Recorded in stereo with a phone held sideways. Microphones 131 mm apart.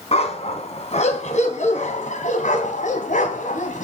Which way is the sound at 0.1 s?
55° left (ahead or behind).